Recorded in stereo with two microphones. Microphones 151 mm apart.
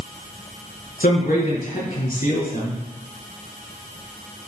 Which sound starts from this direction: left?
A man speaking, at 1.0 s.